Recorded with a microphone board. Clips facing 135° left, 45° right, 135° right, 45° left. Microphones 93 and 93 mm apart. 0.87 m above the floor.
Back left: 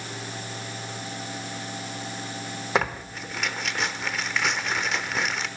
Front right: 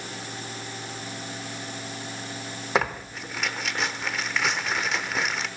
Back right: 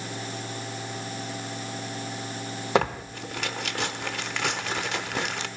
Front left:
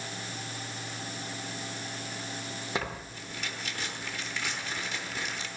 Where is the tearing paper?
135° right, 0.9 m.